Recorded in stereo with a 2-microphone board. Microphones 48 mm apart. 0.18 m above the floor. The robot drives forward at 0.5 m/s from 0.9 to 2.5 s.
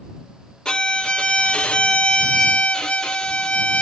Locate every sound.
0.7 s a violin: 15° left (ahead or behind), 0.7 m; by 3.8 s 20° left (ahead or behind), 0.6 m